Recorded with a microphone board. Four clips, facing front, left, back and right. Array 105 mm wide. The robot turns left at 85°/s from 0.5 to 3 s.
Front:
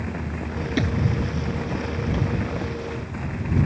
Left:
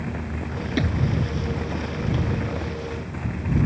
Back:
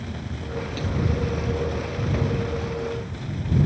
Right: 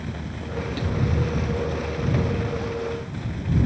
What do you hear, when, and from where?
0.8 s a thud: 40° left; by 1.0 s 25° left